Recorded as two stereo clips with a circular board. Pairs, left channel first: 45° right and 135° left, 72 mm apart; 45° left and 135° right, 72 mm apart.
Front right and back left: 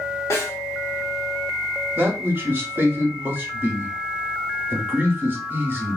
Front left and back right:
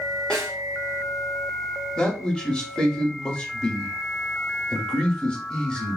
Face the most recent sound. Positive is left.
turn(degrees=110)